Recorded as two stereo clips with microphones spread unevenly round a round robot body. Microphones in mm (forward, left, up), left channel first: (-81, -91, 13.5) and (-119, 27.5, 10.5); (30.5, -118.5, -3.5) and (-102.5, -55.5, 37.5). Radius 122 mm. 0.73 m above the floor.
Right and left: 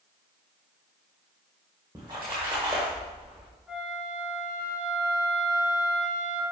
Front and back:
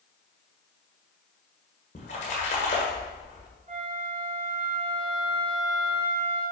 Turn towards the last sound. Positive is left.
turn(degrees=-170)